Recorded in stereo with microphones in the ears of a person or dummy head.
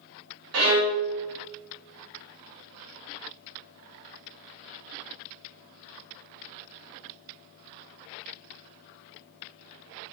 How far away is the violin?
About 0.5 m.